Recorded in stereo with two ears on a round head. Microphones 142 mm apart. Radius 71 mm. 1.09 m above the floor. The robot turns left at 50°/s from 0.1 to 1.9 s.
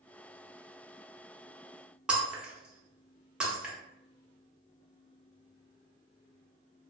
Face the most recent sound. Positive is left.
turn(degrees=-5)  # may be behind; listen again after turning